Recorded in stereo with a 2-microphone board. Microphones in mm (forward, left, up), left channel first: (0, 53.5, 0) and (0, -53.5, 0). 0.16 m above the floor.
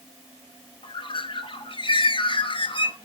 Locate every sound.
0.8 s a bird: 55° left (ahead or behind), 0.6 m